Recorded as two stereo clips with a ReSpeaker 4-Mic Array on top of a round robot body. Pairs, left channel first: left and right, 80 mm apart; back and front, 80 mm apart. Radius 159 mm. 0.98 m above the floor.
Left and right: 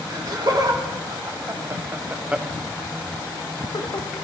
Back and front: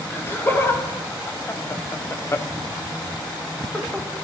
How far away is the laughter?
About 1.9 m.